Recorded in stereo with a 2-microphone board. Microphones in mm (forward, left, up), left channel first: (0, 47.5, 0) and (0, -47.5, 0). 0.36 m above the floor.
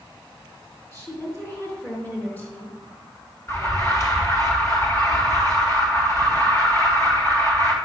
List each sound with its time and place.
0.9 s a woman speaking: 30° left (ahead or behind), 5.5 m; by 2.8 s 15° left (ahead or behind), 4.5 m
3.5 s an alarm: 30° left (ahead or behind), 3 m